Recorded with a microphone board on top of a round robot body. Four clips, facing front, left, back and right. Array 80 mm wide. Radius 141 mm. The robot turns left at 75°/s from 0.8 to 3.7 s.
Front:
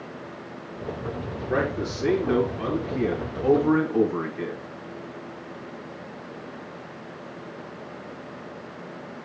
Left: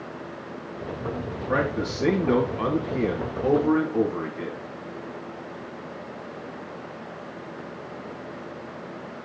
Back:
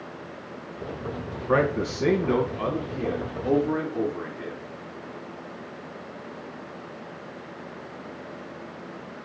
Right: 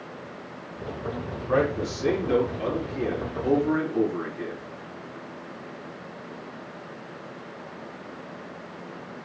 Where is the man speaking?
175° right, 4 m; by 4.6 s 20° left, 4 m.